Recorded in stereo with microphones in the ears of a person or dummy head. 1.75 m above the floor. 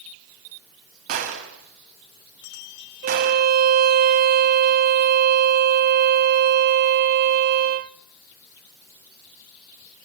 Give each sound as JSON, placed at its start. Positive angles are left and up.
{"t": 1.1, "sound": "a gunshot", "side_deg": -50, "distance_m": 3.0}
{"t": 3.0, "sound": "a violin", "side_deg": -50, "distance_m": 0.7}